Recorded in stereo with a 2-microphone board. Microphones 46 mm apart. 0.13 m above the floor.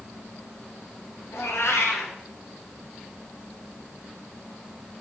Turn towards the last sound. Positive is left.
turn(degrees=70)  # may be behind; listen again after turning